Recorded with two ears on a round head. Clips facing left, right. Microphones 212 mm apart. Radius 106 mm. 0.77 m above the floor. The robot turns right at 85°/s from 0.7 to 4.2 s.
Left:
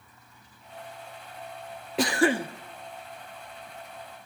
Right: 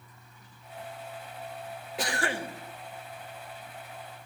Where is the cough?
65° left, 1.1 m; by 2.5 s 105° left, 1.1 m.